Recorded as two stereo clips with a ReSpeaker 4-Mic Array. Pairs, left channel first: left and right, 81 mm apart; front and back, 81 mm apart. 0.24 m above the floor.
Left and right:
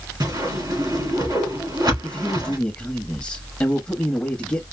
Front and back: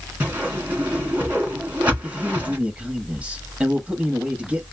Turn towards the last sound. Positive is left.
turn(degrees=140)